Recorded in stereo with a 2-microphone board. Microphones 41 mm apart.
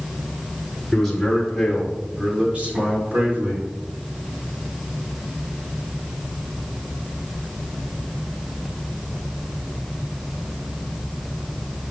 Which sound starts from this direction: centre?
A man speaking, at 0.9 s.